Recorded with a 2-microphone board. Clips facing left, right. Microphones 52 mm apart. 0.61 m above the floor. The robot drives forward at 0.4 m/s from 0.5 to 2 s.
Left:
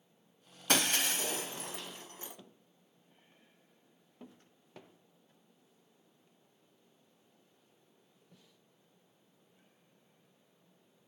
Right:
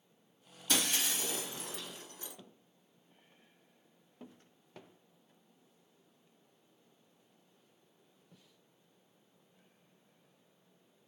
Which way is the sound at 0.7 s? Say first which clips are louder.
Left 3 dB; 60° left (ahead or behind).